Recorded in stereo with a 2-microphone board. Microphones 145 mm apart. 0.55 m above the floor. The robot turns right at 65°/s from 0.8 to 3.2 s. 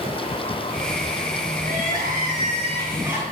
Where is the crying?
110° right, 3 m; by 3.2 s 10° right, 3 m.